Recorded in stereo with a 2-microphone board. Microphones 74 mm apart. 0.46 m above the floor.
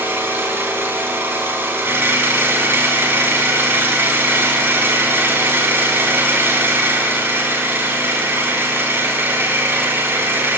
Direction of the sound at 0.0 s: 30° right (ahead or behind).